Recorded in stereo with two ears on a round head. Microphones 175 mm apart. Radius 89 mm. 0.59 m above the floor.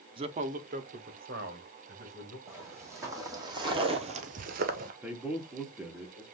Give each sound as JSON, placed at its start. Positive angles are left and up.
{"t": 0.2, "sound": "a man speaking", "side_deg": -25, "distance_m": 0.6}
{"t": 2.5, "sound": "footsteps", "side_deg": -15, "distance_m": 2.5}
{"t": 5.0, "sound": "a man speaking", "side_deg": -5, "distance_m": 1.0}